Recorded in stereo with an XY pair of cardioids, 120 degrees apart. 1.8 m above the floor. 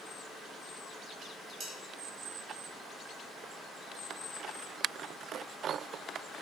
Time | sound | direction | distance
1.2 | dishes clattering | 50° right | 3.5 m